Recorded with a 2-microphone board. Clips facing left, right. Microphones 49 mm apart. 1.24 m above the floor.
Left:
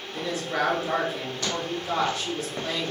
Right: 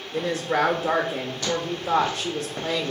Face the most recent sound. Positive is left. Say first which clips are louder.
# right 5 dB
turn(degrees=-60)  # may be behind; listen again after turning